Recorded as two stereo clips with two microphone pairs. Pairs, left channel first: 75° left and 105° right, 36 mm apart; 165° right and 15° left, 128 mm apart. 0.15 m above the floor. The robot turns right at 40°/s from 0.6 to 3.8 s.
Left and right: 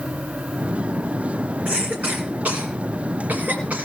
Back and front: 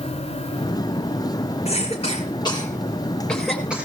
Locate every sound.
1.6 s a cough: 150° right, 3 m; by 3.9 s 65° right, 3 m